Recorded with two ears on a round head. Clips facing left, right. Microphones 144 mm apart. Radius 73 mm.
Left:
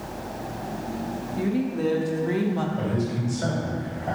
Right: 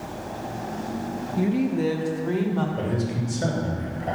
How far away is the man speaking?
About 2 m.